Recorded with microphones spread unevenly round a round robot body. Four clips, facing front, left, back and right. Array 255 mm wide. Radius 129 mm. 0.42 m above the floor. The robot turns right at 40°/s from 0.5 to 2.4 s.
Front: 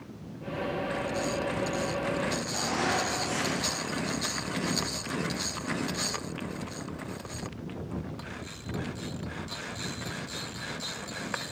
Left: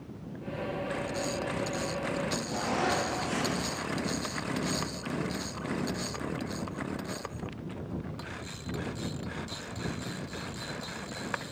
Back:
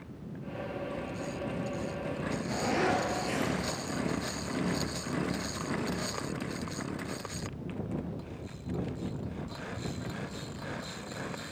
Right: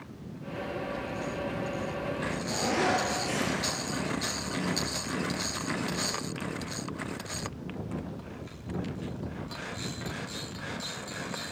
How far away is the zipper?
About 4.5 m.